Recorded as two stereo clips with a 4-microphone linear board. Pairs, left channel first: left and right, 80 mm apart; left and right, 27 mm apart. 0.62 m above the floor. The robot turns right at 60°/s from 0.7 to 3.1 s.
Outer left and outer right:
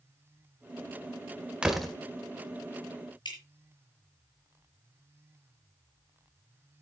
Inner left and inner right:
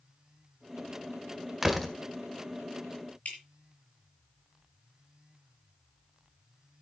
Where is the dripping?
65° left (ahead or behind), 5.5 m.